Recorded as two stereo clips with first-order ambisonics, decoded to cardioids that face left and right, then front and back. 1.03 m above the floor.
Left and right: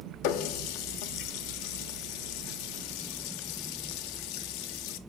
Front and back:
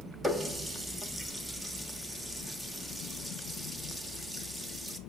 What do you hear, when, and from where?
0.2 s a running tap: 100° left, 1.2 m